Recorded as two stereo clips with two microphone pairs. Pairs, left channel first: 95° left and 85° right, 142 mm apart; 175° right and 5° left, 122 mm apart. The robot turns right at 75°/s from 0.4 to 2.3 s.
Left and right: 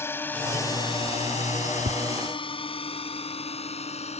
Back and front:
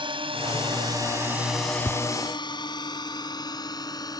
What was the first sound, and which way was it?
A drone, 25° left.